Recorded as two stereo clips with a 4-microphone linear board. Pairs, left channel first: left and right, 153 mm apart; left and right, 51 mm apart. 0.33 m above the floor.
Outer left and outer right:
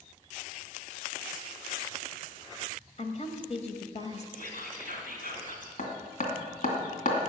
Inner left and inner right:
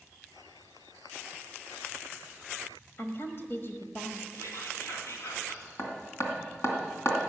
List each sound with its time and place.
3.0 s a woman speaking: 45° left (ahead or behind), 1.4 m
4.3 s whispering: 65° left (ahead or behind), 3.5 m
5.8 s hammering: 65° left (ahead or behind), 2.5 m